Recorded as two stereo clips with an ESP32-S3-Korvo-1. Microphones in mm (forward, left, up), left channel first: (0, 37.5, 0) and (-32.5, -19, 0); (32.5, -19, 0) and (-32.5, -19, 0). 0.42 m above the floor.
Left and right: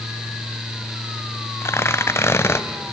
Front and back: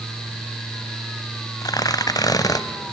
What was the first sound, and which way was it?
Tearing paper, 10° left.